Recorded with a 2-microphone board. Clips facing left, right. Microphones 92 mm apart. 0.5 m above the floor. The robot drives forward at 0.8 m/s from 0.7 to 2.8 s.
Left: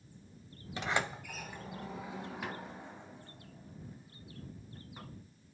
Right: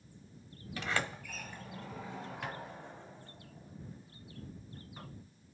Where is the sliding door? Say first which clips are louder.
Left 2 dB; 20° left (ahead or behind), 0.8 m; by 5.1 s 5° left (ahead or behind), 2.5 m.